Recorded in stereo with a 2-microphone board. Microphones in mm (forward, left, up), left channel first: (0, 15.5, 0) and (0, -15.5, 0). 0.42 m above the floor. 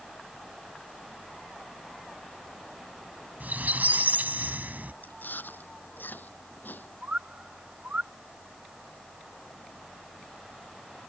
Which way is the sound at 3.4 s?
70° right (ahead or behind).